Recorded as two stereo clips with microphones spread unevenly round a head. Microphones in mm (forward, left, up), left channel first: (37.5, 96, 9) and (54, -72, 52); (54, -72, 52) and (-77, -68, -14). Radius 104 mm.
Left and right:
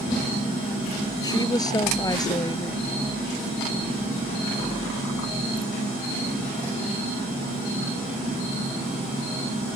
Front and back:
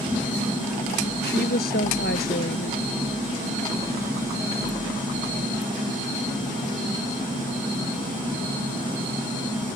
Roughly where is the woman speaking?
Ahead left.